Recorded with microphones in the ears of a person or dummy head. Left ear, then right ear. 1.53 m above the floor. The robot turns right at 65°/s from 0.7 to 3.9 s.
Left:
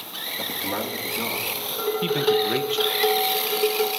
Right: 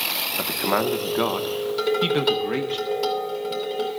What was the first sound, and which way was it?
A man speaking, 90° right.